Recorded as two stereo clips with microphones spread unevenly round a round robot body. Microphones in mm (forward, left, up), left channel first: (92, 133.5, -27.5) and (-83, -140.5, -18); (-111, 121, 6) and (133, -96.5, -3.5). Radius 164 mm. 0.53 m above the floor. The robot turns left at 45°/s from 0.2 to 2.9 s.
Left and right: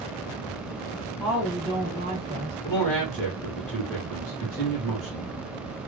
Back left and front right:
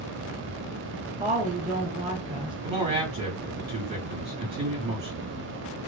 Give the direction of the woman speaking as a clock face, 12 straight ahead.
1 o'clock.